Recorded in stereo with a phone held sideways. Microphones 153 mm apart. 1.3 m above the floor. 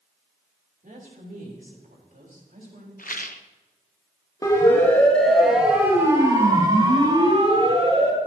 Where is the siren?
25° left (ahead or behind), 3 m; by 8.2 s 45° right (ahead or behind), 5 m.